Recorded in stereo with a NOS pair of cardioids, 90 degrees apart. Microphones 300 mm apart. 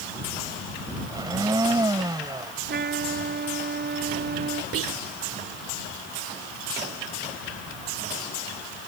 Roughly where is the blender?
Ahead.